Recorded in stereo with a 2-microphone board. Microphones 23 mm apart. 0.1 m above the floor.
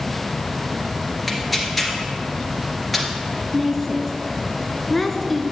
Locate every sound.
1.3 s tearing paper: 5° left (ahead or behind), 2.0 m
3.5 s a woman speaking: 10° left (ahead or behind), 1.1 m